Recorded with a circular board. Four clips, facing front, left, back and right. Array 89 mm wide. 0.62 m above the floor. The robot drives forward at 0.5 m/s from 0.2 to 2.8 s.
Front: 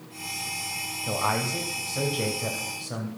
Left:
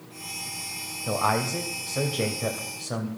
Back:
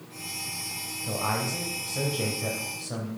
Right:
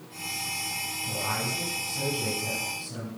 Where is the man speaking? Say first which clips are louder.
Left 8 dB, front 2 dB; 75° left, 3 m; by 3.1 s 90° left, 3 m.